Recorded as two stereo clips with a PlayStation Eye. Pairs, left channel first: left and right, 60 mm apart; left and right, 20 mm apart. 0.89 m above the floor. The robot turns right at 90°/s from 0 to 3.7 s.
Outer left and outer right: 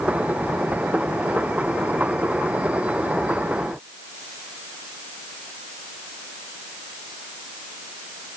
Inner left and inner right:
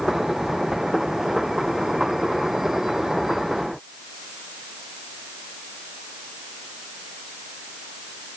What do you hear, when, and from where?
Only background noise.